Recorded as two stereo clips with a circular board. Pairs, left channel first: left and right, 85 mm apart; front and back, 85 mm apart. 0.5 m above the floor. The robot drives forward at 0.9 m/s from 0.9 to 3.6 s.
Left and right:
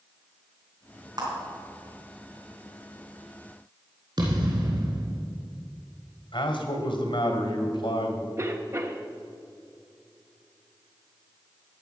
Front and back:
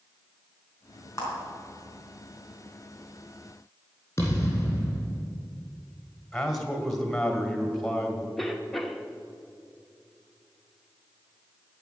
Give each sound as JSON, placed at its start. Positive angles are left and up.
{"t": 1.2, "sound": "a clap", "azimuth_deg": -50, "distance_m": 4.0}
{"t": 4.2, "sound": "a thud", "azimuth_deg": -60, "distance_m": 3.0}
{"t": 6.3, "sound": "a man speaking", "azimuth_deg": 85, "distance_m": 1.8}
{"t": 8.4, "sound": "a cough", "azimuth_deg": -85, "distance_m": 1.0}